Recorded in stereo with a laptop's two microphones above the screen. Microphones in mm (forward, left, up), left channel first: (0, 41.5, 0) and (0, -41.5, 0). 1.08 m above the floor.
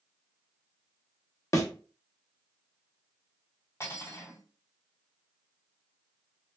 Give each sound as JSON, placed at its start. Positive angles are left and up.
{"t": 1.5, "sound": "a thud", "side_deg": 40, "distance_m": 0.6}
{"t": 3.8, "sound": "cutlery clinking", "side_deg": 35, "distance_m": 1.4}